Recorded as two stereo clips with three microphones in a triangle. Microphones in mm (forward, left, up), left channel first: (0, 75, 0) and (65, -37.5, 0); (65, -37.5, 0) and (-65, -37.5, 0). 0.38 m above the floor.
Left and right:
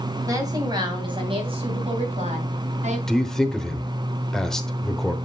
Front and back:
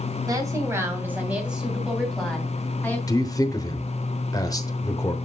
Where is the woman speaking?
120° right, 2.5 m; by 3.0 s 75° right, 3 m.